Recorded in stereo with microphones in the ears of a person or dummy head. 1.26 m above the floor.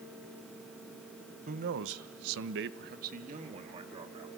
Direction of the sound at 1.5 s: 40° right (ahead or behind).